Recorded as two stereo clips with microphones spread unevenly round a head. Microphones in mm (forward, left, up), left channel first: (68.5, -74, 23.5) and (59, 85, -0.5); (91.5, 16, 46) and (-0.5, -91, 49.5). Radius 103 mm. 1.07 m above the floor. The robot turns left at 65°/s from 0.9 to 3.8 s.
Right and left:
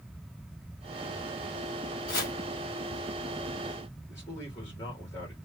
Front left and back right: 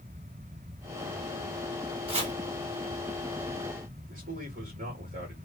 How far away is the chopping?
About 1.8 m.